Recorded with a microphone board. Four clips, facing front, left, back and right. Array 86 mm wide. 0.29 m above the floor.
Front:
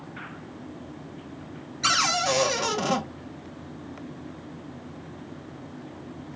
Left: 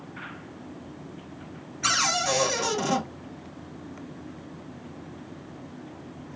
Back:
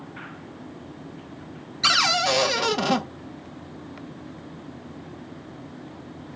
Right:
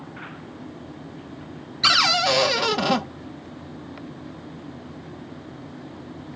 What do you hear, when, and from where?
1.8 s a cupboard door: 115° right, 0.5 m